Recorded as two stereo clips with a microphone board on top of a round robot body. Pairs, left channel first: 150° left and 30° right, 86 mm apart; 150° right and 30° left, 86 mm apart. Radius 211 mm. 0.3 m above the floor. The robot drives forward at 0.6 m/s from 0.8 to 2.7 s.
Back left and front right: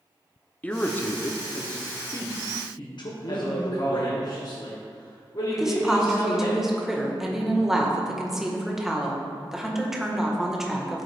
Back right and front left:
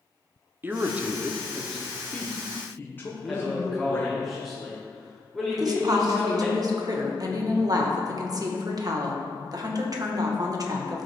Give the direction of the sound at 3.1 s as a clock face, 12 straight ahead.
8 o'clock.